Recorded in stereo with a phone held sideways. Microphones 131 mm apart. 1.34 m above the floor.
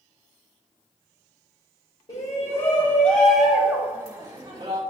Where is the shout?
50° left (ahead or behind), 2.5 m; by 4.8 s 45° right (ahead or behind), 2.5 m.